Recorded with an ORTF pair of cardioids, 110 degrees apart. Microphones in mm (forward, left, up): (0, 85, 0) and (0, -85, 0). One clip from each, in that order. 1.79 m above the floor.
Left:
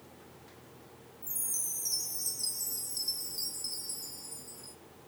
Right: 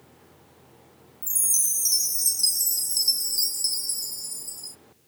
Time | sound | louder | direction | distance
1.2 | a chime | right 12 dB | 60° right | 0.8 m